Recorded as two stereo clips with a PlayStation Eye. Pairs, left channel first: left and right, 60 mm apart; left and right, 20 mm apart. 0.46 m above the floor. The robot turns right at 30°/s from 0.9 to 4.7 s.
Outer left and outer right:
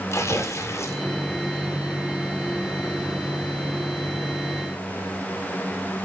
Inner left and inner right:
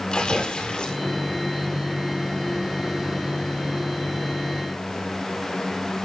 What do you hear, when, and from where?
0.1 s tearing paper: 55° left (ahead or behind), 2.0 m; by 1.0 s 50° left (ahead or behind), 2.0 m